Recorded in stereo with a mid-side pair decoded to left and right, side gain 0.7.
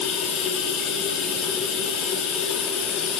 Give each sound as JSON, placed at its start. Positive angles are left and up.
{"t": 0.0, "sound": "running water", "azimuth_deg": 50, "distance_m": 3.5}